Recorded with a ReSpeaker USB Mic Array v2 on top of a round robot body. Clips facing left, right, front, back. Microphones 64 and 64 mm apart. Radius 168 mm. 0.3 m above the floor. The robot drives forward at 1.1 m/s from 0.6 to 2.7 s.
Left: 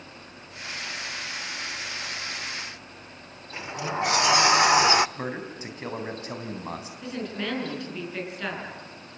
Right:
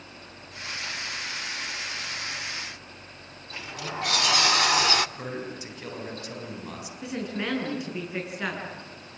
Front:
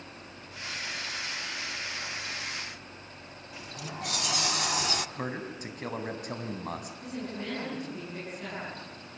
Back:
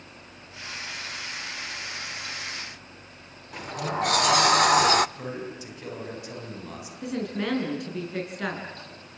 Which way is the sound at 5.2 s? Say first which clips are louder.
Left 2 dB, back 1 dB; 35° left.